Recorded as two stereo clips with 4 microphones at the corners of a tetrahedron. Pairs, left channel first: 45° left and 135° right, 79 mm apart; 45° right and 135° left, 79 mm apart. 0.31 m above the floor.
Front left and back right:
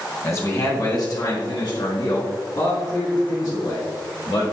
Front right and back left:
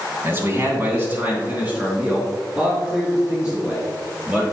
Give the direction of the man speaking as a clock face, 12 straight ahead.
9 o'clock.